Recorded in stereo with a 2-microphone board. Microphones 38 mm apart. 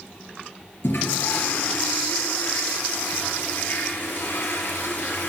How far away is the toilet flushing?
About 2.5 m.